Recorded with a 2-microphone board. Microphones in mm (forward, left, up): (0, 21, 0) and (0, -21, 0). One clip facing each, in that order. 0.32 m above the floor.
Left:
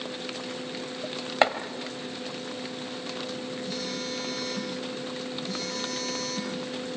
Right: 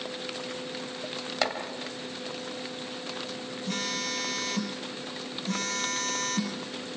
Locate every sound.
1.4 s chopping: 30° left (ahead or behind), 1.9 m
3.7 s a phone buzzing: 60° right (ahead or behind), 3 m